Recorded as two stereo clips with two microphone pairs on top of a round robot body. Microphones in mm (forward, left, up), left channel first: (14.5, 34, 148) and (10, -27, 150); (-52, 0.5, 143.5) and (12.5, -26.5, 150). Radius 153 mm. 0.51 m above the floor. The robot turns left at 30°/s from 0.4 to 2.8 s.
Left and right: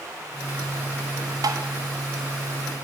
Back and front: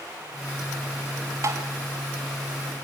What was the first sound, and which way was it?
Tapping, 70° right.